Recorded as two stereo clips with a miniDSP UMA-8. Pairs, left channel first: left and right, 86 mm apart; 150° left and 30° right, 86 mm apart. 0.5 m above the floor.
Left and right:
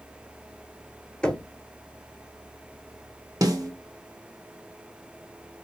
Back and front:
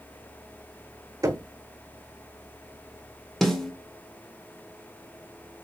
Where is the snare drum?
125° right, 1.0 m.